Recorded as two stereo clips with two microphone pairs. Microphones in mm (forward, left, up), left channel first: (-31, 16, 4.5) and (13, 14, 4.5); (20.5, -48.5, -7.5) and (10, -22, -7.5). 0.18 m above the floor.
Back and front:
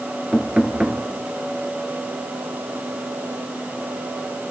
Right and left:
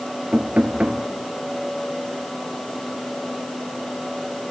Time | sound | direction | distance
0.3 | knocking | 65° left | 2.5 m